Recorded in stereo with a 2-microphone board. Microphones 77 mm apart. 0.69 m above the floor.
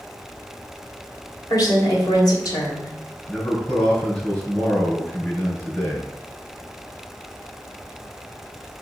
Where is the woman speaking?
55° left (ahead or behind), 2.5 m.